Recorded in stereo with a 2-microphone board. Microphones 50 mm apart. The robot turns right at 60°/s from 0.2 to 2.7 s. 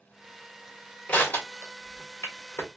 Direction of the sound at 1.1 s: 35° left (ahead or behind).